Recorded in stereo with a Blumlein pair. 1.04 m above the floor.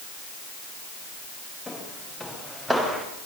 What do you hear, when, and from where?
1.7 s footsteps: 5° left, 6.5 m; by 3.0 s 10° right, 6.5 m